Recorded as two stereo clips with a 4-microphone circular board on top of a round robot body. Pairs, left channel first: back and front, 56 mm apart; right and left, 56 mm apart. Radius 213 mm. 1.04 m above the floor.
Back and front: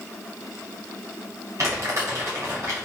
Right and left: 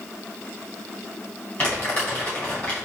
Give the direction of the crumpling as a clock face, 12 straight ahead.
1 o'clock.